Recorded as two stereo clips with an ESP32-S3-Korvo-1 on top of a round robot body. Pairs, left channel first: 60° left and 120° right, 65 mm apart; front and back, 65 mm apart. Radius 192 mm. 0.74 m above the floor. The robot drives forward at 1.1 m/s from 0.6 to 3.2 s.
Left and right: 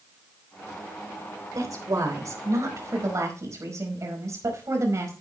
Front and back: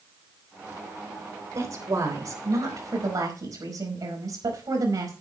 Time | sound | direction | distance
1.6 | a woman speaking | 145° right | 3.5 m